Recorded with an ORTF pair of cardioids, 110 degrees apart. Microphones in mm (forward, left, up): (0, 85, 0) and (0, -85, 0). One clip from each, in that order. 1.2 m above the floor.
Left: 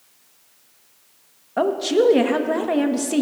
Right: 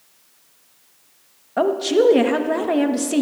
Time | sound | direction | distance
1.6 | a woman speaking | 5° right | 0.9 m